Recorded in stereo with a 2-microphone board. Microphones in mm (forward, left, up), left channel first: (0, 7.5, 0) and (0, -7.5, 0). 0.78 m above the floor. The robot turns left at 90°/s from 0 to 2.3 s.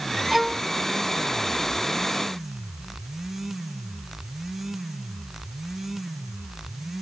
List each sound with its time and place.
0.3 s a violin: 165° right; by 0.7 s 160° left